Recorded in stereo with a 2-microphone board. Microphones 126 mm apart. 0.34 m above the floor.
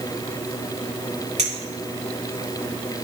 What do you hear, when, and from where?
1.4 s a clink: 70° right (ahead or behind), 2.5 m